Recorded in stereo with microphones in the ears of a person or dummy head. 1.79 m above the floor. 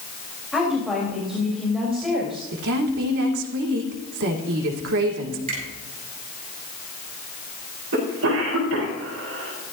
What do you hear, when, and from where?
0.5 s a woman speaking: centre (ahead or behind), 4 m
2.5 s a woman speaking: 70° right (ahead or behind), 2.5 m
5.5 s a finger snap: 40° right (ahead or behind), 7 m
7.9 s a cough: 75° right (ahead or behind), 5 m